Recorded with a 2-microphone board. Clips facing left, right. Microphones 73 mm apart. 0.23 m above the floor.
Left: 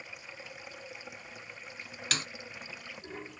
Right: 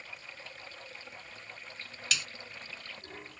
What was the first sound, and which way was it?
Running water, 15° left (ahead or behind).